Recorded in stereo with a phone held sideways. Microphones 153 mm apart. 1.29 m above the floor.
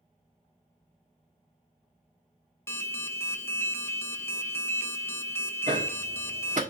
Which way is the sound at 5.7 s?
55° right (ahead or behind).